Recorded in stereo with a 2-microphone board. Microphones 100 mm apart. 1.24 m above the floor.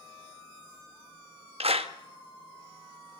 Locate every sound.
1.6 s a clap: 80° right, 1.2 m